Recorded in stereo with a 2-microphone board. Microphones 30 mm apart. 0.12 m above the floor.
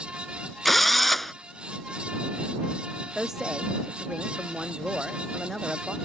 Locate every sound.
0.7 s a drill: 5° left (ahead or behind)
3.1 s a woman speaking: 20° right (ahead or behind)